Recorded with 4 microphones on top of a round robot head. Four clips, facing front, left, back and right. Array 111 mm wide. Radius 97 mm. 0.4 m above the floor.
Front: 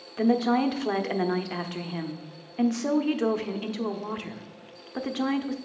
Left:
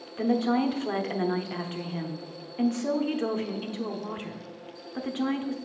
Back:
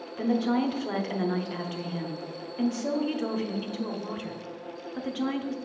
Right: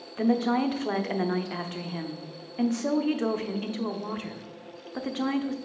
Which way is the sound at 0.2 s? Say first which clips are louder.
Even, front 3 dB; 25° right.